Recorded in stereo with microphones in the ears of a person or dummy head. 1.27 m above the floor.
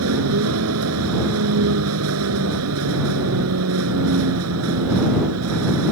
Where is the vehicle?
80° right.